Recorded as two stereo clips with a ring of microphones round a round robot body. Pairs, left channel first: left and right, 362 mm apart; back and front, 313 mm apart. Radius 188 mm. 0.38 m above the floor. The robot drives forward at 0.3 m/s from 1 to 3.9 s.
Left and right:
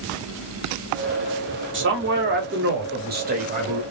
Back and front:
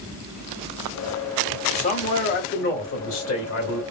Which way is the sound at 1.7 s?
125° right.